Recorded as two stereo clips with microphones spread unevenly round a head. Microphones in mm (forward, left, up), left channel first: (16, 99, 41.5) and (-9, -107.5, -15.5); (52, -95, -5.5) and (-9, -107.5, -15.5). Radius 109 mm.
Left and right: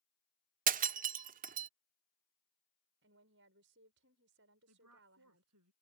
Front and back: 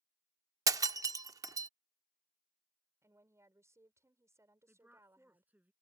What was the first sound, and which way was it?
Breaking glass, 155° right.